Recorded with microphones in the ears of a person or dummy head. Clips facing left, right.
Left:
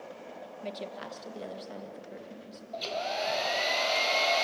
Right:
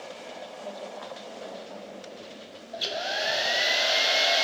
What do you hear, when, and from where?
0.6 s a woman speaking: 30° left (ahead or behind), 1.8 m; by 2.6 s 35° left (ahead or behind), 3 m
2.7 s a hair dryer: 15° right (ahead or behind), 0.7 m